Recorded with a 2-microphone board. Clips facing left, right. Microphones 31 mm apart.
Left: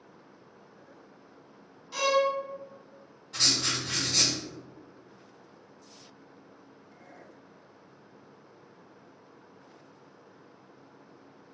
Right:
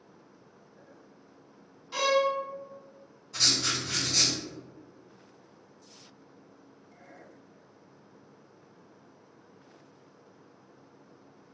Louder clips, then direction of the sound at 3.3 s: Even; 55° left (ahead or behind).